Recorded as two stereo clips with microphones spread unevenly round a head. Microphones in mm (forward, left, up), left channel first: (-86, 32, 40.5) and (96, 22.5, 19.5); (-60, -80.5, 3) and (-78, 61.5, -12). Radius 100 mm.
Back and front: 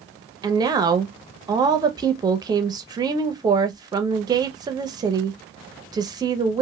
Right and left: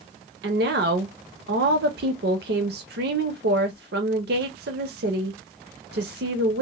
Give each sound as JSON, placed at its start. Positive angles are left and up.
{"t": 0.4, "sound": "a woman speaking", "azimuth_deg": 65, "distance_m": 0.6}